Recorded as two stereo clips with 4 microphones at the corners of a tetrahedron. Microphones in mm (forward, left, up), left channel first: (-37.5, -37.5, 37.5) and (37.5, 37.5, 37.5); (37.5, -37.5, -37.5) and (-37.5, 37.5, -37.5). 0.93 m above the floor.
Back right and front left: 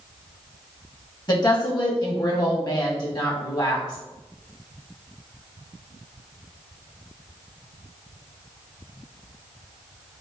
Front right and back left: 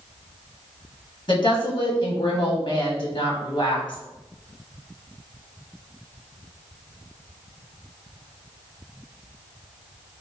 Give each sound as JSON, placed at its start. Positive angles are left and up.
{"t": 1.3, "sound": "a woman speaking", "azimuth_deg": -85, "distance_m": 1.3}